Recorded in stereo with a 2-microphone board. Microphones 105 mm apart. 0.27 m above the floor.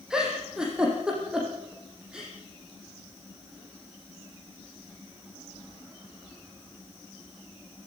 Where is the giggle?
5° right (ahead or behind), 8 m.